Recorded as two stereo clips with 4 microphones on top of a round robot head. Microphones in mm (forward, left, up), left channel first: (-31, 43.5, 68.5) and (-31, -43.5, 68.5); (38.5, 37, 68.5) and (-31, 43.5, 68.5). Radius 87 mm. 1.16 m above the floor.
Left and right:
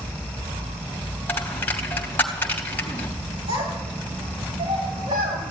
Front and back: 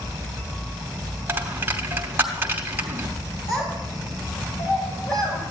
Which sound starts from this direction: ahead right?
A child speaking, at 3.5 s.